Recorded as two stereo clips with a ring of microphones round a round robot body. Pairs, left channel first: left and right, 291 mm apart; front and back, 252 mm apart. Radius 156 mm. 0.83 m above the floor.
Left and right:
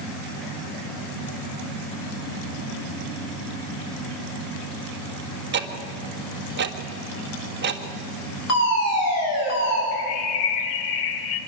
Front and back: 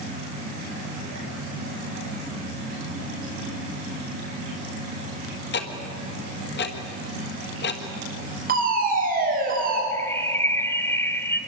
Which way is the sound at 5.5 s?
40° right.